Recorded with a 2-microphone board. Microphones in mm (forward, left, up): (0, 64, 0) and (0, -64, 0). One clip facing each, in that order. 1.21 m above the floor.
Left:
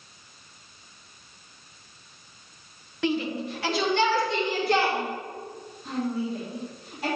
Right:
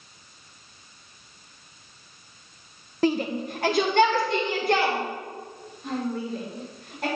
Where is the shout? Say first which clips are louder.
Right 3 dB; 40° right (ahead or behind), 0.7 m; by 7.1 s 60° right (ahead or behind), 4.5 m.